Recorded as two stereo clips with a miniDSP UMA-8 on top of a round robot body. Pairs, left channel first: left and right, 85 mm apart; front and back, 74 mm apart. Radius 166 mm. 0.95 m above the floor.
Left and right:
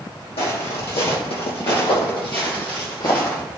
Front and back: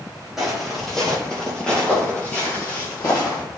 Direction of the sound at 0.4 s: 90° left.